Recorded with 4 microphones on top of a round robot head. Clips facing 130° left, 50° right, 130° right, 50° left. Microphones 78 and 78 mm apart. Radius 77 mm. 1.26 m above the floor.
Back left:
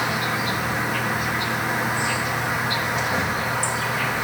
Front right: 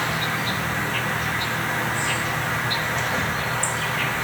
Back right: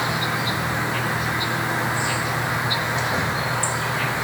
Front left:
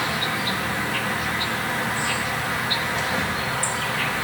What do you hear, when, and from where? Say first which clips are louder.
0.0 s an insect: back left 1 dB, back right 2 dB; 165° right, 1.0 m